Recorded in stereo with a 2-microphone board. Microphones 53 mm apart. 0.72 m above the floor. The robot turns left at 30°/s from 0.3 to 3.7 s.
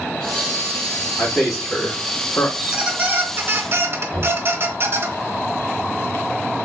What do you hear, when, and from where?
1.2 s a man speaking: 5° right (ahead or behind), 1.7 m; by 2.5 s 30° left (ahead or behind), 1.7 m
2.6 s a squeak: 20° right, 0.8 m; by 5.1 s 55° right, 0.8 m
4.1 s knocking: 40° right (ahead or behind), 2 m